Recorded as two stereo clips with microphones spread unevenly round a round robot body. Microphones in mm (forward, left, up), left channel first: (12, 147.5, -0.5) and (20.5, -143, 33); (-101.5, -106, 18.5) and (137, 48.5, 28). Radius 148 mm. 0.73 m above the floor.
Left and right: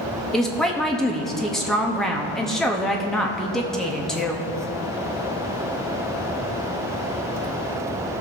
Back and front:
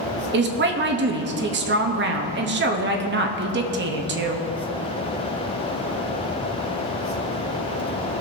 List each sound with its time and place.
0.3 s a woman speaking: 15° left, 1.0 m